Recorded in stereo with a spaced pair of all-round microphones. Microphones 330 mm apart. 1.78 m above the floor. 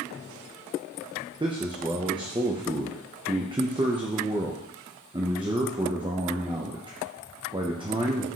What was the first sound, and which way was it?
A man speaking, 15° right (ahead or behind).